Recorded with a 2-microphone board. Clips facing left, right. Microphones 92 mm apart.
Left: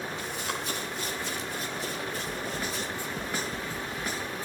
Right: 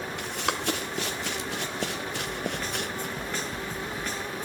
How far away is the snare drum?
About 2.5 m.